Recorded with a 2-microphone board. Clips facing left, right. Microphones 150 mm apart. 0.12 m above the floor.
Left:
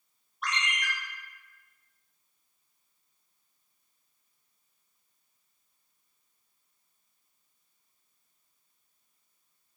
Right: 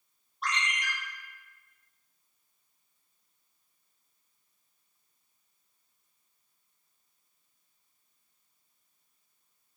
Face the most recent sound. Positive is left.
turn(degrees=-35)  # may be behind; listen again after turning